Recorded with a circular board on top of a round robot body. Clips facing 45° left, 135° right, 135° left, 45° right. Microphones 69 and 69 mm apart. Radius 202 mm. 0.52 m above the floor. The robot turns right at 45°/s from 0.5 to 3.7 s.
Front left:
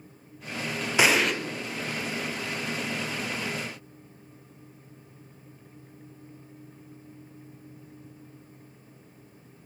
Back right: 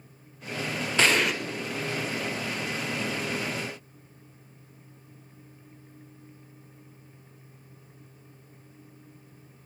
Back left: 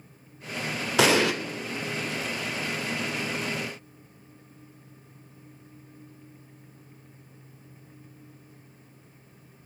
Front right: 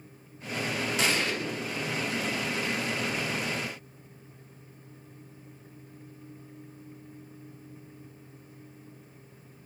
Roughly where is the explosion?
Behind left.